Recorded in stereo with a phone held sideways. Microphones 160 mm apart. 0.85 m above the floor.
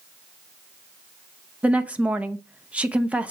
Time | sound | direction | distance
1.6 | a woman speaking | 5° right (ahead or behind) | 0.7 m